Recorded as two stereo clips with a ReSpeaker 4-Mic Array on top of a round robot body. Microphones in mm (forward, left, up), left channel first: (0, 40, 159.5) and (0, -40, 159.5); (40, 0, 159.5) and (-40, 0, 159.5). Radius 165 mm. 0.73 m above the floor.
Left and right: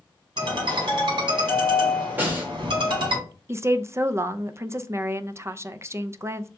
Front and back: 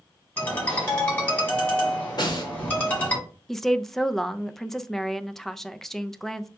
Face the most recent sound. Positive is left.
turn(degrees=-80)